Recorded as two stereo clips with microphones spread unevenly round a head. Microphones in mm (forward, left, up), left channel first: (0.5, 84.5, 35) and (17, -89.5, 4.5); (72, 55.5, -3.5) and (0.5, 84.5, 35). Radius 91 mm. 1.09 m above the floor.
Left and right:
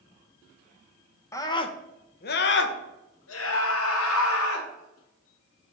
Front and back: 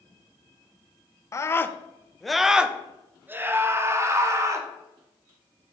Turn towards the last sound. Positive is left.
turn(degrees=105)